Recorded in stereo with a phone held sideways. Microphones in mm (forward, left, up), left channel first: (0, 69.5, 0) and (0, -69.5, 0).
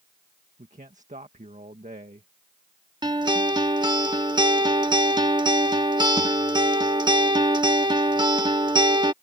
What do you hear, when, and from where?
0.6 s a man speaking: 65° right (ahead or behind)
3.0 s a guitar: 30° right (ahead or behind)